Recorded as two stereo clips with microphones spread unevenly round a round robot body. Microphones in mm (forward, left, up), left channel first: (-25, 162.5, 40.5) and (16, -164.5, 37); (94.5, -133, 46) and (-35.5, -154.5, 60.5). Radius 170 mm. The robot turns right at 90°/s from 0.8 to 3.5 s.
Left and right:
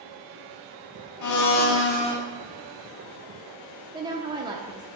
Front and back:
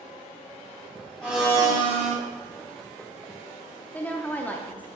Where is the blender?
90° left, 0.7 m; by 2.2 s 175° left, 0.7 m.